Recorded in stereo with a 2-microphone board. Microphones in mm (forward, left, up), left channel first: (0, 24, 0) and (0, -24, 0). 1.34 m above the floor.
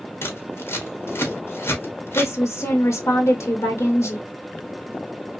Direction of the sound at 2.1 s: 85° left.